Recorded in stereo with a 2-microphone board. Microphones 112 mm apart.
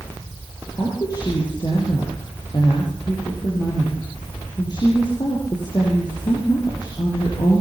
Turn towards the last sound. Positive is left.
turn(degrees=40)  # may be behind; listen again after turning